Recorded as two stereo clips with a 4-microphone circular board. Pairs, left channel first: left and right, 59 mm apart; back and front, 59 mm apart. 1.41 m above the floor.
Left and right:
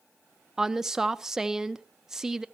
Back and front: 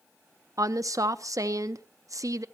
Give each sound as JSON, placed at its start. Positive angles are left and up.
{"t": 0.6, "sound": "a woman speaking", "azimuth_deg": -10, "distance_m": 0.9}